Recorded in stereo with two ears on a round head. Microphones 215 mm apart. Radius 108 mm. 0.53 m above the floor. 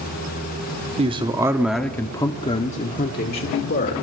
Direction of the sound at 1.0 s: 25° right (ahead or behind).